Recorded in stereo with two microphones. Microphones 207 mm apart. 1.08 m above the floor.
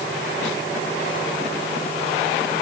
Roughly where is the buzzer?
I don't hear a buzzer.